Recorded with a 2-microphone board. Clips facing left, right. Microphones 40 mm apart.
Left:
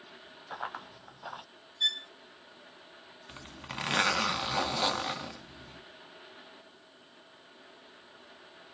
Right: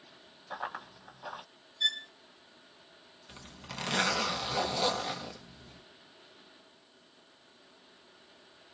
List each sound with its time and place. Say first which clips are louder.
0.5 s running footsteps: even; 5° left (ahead or behind), 1.2 m
1.8 s a violin: left 1 dB; 10° left (ahead or behind), 1.1 m
3.3 s a zipper: left 3 dB; 25° left (ahead or behind), 0.7 m